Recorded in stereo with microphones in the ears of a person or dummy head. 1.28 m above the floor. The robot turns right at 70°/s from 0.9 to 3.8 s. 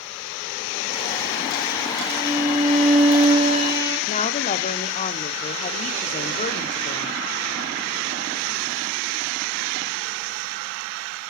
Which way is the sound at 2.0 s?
120° left.